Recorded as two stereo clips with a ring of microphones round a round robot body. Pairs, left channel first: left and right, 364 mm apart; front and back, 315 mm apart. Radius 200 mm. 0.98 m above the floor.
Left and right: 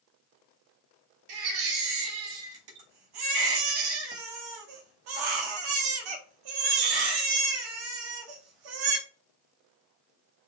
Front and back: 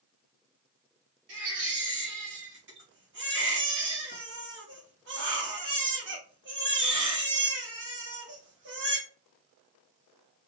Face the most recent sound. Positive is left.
turn(degrees=-120)